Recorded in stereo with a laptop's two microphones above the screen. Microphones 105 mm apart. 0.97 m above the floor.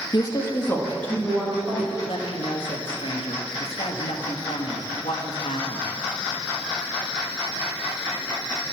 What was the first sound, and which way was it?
A woman speaking, 45° left (ahead or behind).